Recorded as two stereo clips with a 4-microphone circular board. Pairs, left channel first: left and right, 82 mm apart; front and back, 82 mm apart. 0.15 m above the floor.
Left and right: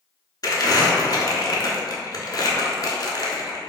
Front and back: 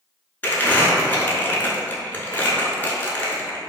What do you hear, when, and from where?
0.4 s crumpling: 65° left, 0.5 m